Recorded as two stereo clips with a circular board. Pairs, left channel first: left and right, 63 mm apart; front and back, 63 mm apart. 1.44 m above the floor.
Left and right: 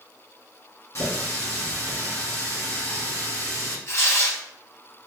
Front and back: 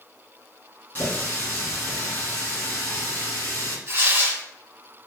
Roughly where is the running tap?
Ahead left.